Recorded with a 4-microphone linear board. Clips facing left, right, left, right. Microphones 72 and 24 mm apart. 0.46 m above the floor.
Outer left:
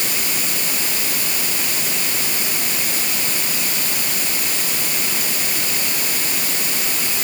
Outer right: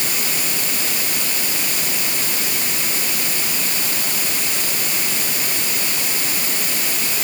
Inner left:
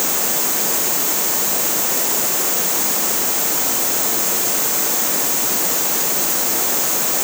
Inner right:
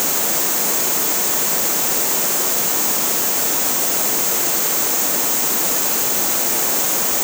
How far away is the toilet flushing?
I don't hear a toilet flushing.